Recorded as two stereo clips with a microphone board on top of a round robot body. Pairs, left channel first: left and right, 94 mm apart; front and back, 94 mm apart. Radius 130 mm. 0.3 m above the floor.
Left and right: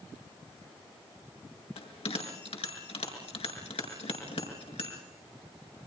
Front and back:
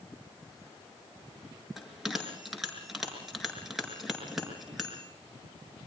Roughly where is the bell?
Left.